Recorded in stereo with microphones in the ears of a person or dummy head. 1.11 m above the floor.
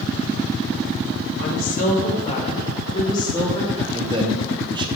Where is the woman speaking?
55° left (ahead or behind), 1.9 m; by 3.8 s 15° left (ahead or behind), 2 m.